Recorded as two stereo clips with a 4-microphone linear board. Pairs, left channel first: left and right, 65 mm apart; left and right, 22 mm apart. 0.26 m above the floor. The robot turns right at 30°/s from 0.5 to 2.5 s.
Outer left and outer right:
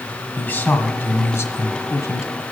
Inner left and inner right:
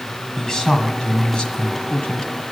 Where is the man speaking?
40° left, 1.6 m; by 2.4 s 95° left, 1.6 m.